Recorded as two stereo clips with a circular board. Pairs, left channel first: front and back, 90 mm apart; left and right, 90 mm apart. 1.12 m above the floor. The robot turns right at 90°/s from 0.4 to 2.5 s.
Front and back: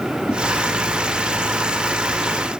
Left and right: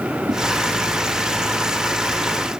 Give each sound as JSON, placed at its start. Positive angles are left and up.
{"t": 0.3, "sound": "a whoosh", "azimuth_deg": -75, "distance_m": 2.0}